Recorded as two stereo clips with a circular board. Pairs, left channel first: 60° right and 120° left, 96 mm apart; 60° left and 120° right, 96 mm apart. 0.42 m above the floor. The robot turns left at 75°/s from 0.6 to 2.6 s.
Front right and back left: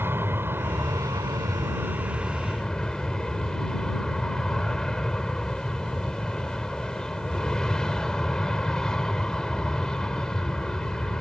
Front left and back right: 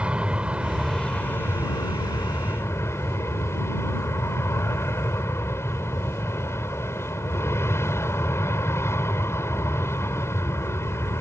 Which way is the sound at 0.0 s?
170° left.